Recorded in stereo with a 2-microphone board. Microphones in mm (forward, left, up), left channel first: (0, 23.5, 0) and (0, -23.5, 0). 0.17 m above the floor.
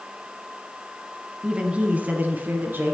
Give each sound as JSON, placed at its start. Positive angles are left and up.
{"t": 1.4, "sound": "a woman speaking", "side_deg": -20, "distance_m": 1.0}